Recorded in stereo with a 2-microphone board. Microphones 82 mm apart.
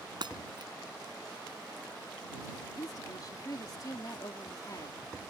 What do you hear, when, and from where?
0.2 s breaking glass: 65° right (ahead or behind)
2.8 s a woman speaking: 50° left (ahead or behind)